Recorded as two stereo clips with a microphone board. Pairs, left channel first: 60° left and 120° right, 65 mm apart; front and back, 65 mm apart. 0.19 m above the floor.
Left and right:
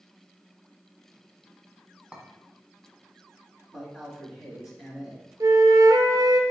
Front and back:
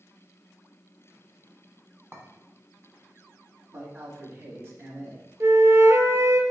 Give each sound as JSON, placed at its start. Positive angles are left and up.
{"t": 2.1, "sound": "a clink", "azimuth_deg": -175, "distance_m": 1.0}
{"t": 3.7, "sound": "a man speaking", "azimuth_deg": 160, "distance_m": 1.1}
{"t": 5.4, "sound": "a flute", "azimuth_deg": -135, "distance_m": 0.6}